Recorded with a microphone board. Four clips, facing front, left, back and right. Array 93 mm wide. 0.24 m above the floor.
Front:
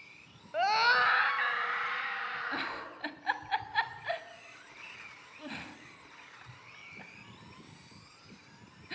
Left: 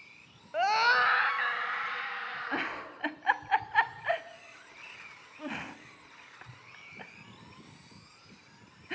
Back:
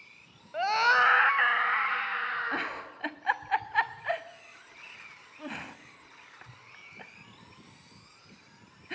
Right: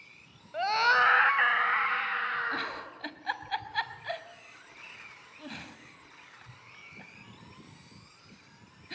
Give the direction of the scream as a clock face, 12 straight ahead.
10 o'clock.